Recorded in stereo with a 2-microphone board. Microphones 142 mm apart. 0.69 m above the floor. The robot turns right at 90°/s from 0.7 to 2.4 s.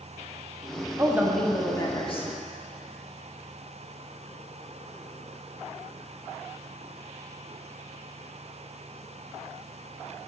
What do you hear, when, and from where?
1.0 s a woman speaking: 35° right, 1.4 m; by 2.3 s 80° left, 1.4 m